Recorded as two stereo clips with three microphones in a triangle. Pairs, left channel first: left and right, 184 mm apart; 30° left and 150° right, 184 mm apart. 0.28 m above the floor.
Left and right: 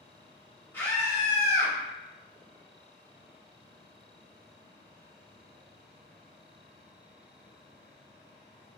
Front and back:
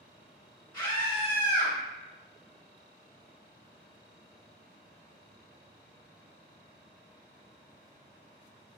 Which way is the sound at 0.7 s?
35° left.